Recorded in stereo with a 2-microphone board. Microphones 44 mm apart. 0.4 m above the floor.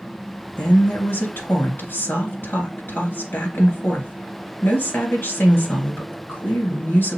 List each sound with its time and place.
0.6 s a woman speaking: 60° left (ahead or behind), 2.5 m